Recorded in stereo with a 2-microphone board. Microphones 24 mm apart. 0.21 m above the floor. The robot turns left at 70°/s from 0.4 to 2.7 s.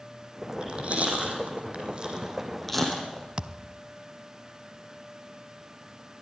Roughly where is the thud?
Right.